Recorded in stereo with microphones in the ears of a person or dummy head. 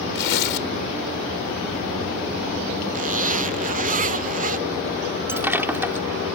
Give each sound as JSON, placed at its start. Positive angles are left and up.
{"t": 0.1, "sound": "tearing paper", "side_deg": 65}
{"t": 2.9, "sound": "a zipper", "side_deg": -40}
{"t": 5.3, "sound": "breaking glass", "side_deg": -10}